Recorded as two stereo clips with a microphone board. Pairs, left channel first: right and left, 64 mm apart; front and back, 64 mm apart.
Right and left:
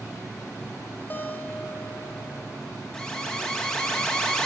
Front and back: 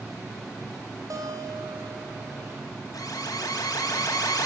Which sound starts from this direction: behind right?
A guitar, at 1.1 s.